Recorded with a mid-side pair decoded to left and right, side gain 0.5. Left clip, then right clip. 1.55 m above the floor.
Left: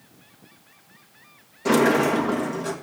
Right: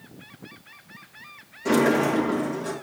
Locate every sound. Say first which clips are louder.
1.6 s a sliding door: left 2 dB; 35° left, 2 m